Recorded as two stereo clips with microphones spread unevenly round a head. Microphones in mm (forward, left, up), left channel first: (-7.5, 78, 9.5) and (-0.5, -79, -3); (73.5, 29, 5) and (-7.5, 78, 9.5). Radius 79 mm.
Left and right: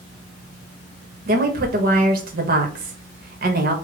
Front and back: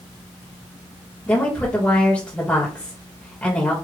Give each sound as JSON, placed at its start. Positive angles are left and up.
{"t": 1.3, "sound": "a woman speaking", "azimuth_deg": -110, "distance_m": 1.3}